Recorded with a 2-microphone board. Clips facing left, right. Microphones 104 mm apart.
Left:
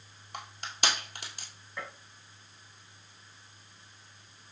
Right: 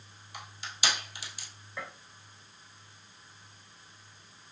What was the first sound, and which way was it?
Crushing, 55° left (ahead or behind).